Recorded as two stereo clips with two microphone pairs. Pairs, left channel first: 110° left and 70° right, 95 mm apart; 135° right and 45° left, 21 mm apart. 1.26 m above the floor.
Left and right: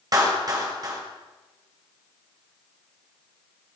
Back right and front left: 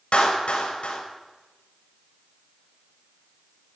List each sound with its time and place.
0.1 s a clap: 115° right, 5.5 m